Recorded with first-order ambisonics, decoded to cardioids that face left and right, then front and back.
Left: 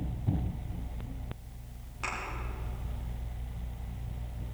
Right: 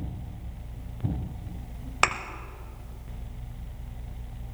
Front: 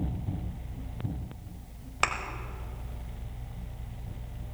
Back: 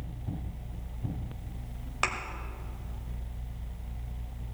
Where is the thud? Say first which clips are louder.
Right 12 dB, front 2 dB; 85° right, 1.0 m.